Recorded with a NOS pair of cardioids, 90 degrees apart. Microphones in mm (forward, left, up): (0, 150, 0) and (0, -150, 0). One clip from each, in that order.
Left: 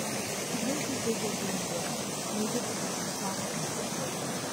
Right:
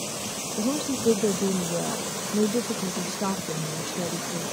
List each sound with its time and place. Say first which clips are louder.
0.6 s a woman speaking: right 8 dB; 70° right